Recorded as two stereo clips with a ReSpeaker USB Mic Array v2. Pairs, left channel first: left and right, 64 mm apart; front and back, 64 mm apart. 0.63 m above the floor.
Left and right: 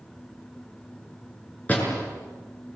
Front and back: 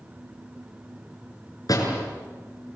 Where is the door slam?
25° left, 7 m.